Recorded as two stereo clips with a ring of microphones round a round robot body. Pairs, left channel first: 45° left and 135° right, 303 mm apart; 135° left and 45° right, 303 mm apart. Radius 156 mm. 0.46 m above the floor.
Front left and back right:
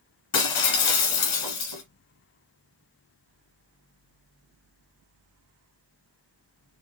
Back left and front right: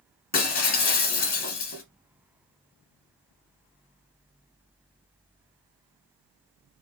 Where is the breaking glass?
75° left, 1.3 m.